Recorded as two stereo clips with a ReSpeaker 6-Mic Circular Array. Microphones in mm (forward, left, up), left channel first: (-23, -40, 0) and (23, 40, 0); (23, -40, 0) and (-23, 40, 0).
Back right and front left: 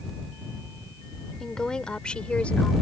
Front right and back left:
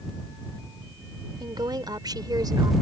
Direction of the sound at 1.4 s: 155° left.